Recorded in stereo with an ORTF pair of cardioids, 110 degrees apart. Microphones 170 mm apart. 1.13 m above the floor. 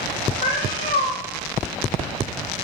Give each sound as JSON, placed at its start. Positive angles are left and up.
{"t": 0.4, "sound": "a cat meowing", "azimuth_deg": 50, "distance_m": 2.0}